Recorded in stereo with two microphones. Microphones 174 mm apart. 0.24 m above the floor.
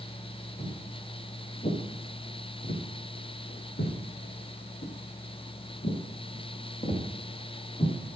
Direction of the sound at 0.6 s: 35° left (ahead or behind).